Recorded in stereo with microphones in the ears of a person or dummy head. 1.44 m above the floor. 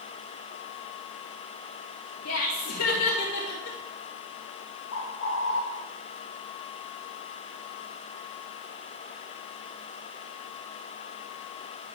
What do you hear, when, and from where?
2.2 s laughter: 80° left, 1.5 m; by 3.8 s 65° left (ahead or behind), 2 m
4.9 s a bird: 80° left, 1.6 m